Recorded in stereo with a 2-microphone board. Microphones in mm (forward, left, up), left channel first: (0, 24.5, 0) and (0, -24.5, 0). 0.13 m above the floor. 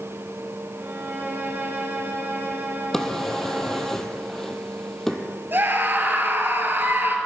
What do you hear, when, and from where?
0.8 s a violin: 45° right (ahead or behind), 2.5 m
2.9 s a drawer: 5° left (ahead or behind), 1.3 m
5.5 s a scream: 45° right (ahead or behind), 2 m